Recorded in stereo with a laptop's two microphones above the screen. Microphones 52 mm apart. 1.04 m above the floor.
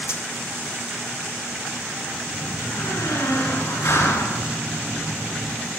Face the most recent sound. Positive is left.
turn(degrees=70)  # may be behind; listen again after turning